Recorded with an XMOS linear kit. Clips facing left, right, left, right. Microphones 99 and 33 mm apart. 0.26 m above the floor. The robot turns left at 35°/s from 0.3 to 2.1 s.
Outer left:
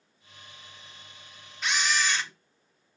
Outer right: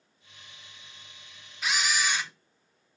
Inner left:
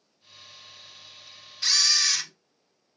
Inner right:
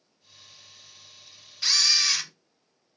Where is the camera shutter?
5° right (ahead or behind), 0.5 m; by 2.3 s 10° right (ahead or behind), 0.5 m.